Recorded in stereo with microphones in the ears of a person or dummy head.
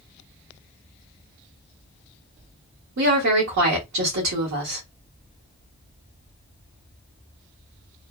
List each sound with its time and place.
3.0 s a woman speaking: 55° right (ahead or behind), 1.3 m